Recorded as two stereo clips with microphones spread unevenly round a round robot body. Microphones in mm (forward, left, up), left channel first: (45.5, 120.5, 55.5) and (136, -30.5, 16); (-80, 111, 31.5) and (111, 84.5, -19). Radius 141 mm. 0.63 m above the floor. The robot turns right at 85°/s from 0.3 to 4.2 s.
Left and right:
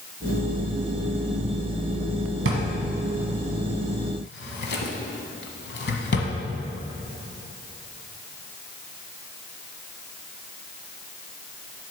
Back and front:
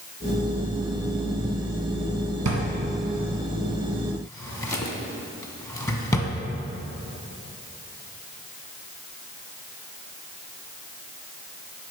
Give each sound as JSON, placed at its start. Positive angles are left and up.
{"t": 2.5, "sound": "a drawer", "azimuth_deg": -50, "distance_m": 1.5}